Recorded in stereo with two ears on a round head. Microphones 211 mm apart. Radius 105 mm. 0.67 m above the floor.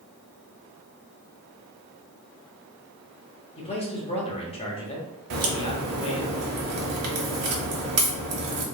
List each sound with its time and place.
3.6 s a man speaking: 25° left (ahead or behind), 0.9 m
5.3 s a crack: 70° right (ahead or behind), 1.1 m